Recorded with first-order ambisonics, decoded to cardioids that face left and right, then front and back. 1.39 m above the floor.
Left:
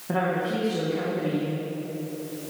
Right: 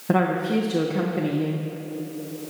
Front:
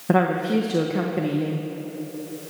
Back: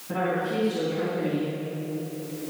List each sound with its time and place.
0.1 s a woman speaking: 30° right, 1.2 m